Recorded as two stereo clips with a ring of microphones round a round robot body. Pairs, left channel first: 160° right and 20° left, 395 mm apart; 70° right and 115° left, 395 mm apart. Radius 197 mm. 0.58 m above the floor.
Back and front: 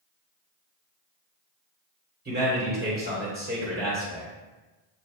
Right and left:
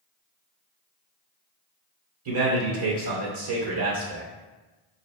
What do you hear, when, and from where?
2.2 s a man speaking: 85° left, 2 m